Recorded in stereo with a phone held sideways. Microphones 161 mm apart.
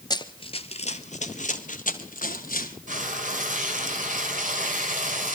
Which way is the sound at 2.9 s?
55° right (ahead or behind).